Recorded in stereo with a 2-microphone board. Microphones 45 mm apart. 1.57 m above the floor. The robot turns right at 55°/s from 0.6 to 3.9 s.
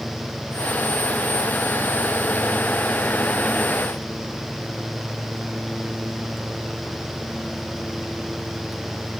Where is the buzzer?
No buzzer in this recording.